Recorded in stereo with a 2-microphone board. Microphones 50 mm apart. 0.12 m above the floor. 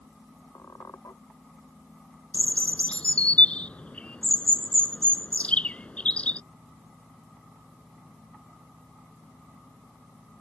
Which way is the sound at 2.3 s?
25° left (ahead or behind).